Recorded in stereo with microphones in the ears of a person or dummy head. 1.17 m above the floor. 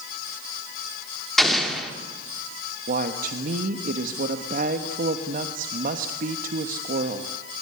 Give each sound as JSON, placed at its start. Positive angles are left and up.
{"t": 1.4, "sound": "an explosion", "side_deg": 0, "distance_m": 3.0}
{"t": 2.9, "sound": "a woman speaking", "side_deg": -50, "distance_m": 1.3}